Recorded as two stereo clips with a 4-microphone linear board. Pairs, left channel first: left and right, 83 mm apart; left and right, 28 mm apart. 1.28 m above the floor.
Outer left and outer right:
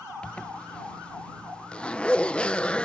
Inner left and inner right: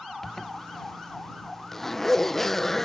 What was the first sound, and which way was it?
A zipper, 10° left (ahead or behind).